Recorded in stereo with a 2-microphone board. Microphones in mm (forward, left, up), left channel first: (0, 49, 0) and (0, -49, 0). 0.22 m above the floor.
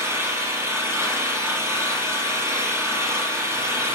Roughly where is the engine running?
Right.